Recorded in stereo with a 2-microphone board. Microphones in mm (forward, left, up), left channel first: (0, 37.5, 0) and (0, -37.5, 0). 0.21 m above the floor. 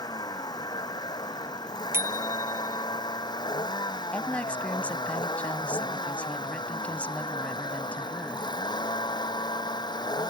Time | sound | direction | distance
0.0 | a vehicle | 65° left (ahead or behind) | ?
1.9 | a bicycle bell | 35° right (ahead or behind) | ?
4.1 | a woman speaking | 20° left (ahead or behind) | ?